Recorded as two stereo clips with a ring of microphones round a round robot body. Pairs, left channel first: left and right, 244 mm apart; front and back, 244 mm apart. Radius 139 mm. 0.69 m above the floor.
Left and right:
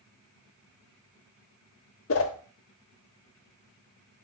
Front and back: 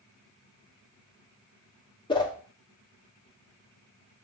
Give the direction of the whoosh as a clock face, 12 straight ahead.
10 o'clock.